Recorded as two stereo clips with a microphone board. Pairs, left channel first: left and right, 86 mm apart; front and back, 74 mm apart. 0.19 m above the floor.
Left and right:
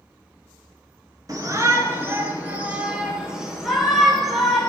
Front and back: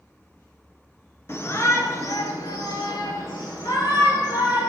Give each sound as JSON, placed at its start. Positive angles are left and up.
{"t": 1.3, "sound": "a shout", "azimuth_deg": -50, "distance_m": 2.5}